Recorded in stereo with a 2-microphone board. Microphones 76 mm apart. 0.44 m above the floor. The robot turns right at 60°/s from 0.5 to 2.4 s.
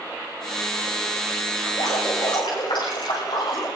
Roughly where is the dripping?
Left.